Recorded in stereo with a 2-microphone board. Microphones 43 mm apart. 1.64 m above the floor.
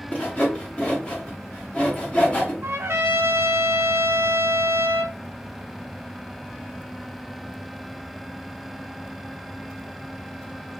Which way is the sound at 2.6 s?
70° right (ahead or behind).